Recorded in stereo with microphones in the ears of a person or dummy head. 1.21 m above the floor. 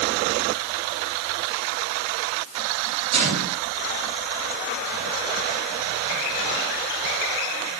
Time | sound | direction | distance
3.1 | a gunshot | 35° right (ahead or behind) | 8.5 m